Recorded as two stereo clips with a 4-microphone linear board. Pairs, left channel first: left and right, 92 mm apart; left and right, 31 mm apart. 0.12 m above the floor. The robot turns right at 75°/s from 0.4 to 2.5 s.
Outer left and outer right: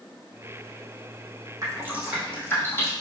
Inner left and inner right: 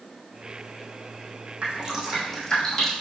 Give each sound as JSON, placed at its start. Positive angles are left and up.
{"t": 1.6, "sound": "dripping", "side_deg": -40, "distance_m": 2.5}